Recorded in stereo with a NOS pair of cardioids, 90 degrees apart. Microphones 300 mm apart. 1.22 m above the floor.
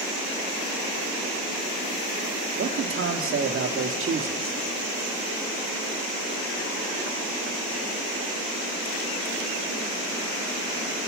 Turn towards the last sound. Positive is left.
turn(degrees=-45)